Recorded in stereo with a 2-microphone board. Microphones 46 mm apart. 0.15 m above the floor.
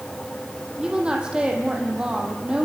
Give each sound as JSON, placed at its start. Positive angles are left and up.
{"t": 0.8, "sound": "a woman speaking", "side_deg": -20, "distance_m": 5.5}